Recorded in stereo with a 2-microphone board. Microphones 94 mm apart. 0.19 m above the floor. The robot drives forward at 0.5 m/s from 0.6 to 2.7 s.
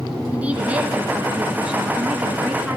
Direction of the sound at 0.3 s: 15° right (ahead or behind).